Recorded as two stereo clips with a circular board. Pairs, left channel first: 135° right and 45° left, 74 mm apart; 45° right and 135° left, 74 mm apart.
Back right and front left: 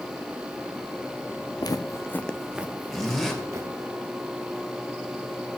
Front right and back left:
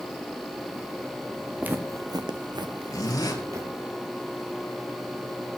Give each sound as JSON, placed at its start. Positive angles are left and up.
{"t": 1.6, "sound": "footsteps", "azimuth_deg": -155, "distance_m": 0.9}
{"t": 2.9, "sound": "a zipper", "azimuth_deg": -55, "distance_m": 3.0}